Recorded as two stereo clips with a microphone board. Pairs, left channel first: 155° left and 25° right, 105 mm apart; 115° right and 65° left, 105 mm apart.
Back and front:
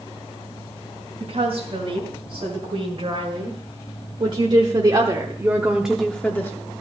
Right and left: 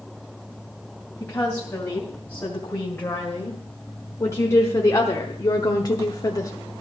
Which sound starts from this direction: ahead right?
A woman speaking, at 1.2 s.